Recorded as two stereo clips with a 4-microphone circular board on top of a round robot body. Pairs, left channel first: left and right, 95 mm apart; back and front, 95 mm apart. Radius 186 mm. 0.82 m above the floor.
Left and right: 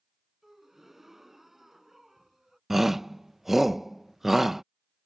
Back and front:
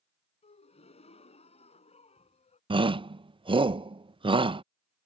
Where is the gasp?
175° right.